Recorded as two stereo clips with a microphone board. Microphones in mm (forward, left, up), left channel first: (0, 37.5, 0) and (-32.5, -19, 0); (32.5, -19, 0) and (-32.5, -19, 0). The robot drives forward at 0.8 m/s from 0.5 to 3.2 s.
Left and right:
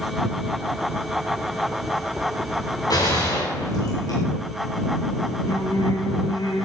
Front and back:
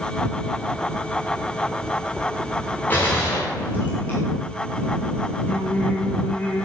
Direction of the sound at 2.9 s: 65° left.